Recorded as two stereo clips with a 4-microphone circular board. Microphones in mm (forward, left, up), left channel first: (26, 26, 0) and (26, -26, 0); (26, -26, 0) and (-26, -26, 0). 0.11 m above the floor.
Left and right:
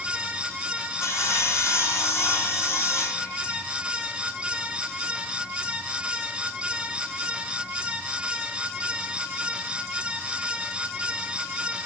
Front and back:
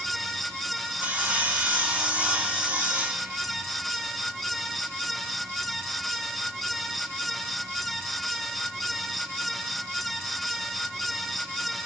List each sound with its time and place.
1.0 s sawing: 115° left, 1.7 m